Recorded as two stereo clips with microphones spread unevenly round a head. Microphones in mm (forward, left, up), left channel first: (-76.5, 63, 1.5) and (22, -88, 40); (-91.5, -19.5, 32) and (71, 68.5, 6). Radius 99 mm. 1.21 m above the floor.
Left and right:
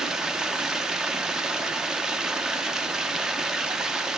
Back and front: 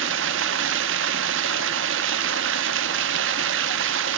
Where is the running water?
20° left, 0.8 m.